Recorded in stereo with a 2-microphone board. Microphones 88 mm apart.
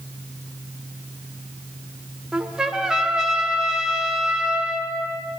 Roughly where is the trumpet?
Centre.